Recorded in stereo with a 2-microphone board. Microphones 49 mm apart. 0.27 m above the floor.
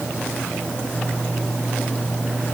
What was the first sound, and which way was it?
Only background noise.